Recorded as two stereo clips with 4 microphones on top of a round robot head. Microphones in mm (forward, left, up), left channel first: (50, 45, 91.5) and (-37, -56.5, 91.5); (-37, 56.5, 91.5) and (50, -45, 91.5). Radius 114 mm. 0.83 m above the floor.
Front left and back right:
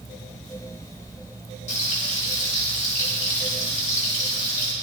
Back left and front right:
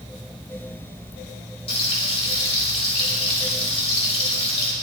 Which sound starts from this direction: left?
Frying, at 1.7 s.